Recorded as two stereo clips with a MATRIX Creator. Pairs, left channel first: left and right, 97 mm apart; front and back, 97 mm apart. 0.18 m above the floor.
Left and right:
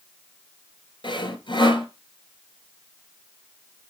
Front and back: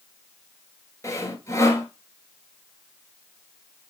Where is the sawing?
55° left, 2.5 m.